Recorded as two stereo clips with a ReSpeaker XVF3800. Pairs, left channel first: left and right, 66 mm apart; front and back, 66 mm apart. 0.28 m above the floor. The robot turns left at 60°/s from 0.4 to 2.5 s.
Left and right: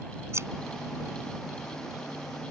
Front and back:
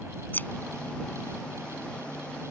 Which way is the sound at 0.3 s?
55° right.